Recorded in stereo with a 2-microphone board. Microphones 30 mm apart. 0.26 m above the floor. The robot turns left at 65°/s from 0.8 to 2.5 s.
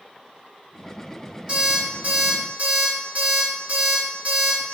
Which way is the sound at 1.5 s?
30° right.